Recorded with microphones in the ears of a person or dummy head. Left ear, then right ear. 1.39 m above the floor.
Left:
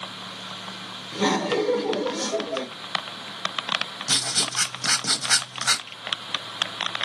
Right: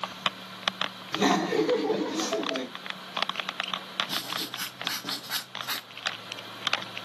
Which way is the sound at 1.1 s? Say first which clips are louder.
Left 2 dB; 15° right (ahead or behind).